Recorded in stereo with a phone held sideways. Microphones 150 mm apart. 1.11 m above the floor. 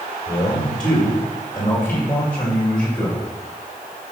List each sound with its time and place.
0.3 s a man speaking: 40° left (ahead or behind), 3.5 m; by 3.3 s 5° left (ahead or behind), 6 m